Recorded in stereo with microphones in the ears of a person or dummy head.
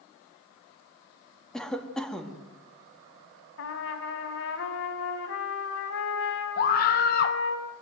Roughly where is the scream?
Left.